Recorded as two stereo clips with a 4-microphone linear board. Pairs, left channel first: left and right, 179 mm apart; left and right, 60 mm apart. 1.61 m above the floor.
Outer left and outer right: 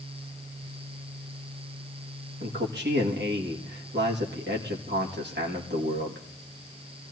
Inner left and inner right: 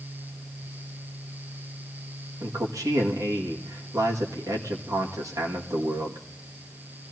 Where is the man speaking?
70° right (ahead or behind), 1.8 m.